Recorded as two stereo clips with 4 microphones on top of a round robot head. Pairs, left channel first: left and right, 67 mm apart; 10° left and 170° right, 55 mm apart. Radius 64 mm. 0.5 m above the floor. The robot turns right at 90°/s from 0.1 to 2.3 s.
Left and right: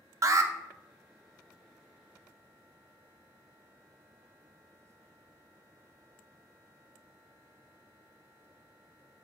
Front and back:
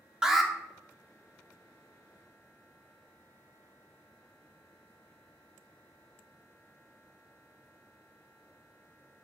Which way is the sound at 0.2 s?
95° right.